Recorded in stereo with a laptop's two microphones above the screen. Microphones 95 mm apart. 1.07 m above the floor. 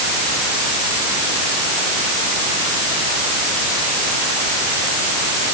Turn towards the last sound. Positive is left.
No sound to turn to.